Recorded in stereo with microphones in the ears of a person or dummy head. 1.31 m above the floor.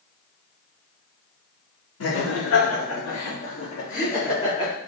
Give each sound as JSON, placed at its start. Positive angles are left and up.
{"t": 2.0, "sound": "laughter", "side_deg": 80, "distance_m": 3.0}